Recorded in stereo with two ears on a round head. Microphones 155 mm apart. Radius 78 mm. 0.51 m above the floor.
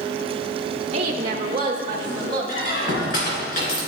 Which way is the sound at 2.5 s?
50° left (ahead or behind).